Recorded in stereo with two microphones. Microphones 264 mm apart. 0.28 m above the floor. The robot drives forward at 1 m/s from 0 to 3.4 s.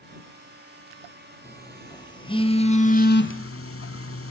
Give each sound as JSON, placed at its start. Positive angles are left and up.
{"t": 1.4, "sound": "a phone buzzing", "side_deg": 10, "distance_m": 2.5}